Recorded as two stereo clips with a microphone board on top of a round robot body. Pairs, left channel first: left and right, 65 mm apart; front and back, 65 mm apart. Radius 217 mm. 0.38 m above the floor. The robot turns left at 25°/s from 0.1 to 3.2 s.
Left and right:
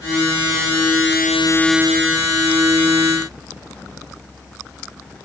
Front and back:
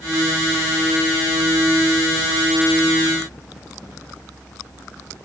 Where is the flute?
I don't hear a flute.